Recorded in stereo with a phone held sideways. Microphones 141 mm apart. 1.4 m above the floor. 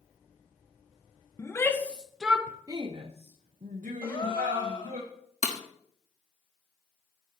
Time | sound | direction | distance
1.4 | a shout | 20° left (ahead or behind) | 1.0 m
4.0 | a gasp | 40° left (ahead or behind) | 2.5 m
5.4 | breaking glass | 60° left (ahead or behind) | 1.3 m